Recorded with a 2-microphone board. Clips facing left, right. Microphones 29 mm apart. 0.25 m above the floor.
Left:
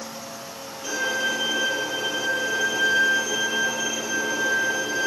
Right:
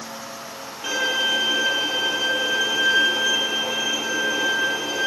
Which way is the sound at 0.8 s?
40° right (ahead or behind).